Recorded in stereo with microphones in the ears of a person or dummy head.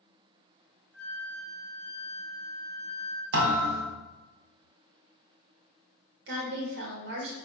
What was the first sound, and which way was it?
A flute, 65° right (ahead or behind).